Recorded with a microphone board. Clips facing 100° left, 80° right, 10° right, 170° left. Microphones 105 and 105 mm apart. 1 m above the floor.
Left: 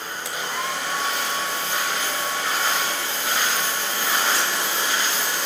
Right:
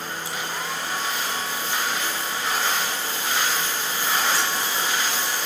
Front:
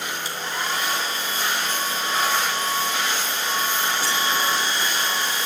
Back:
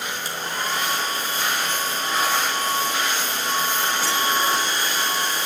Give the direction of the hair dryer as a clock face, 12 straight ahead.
8 o'clock.